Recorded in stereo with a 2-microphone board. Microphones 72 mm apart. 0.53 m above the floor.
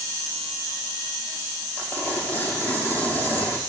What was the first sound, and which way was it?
Tearing paper, 25° left (ahead or behind).